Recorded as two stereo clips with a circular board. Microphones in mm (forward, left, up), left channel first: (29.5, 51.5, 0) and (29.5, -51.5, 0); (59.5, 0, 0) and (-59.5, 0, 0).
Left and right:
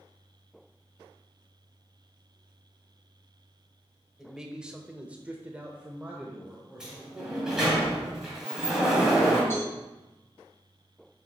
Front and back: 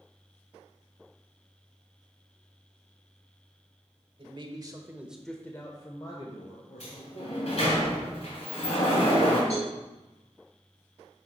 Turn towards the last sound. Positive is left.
turn(degrees=25)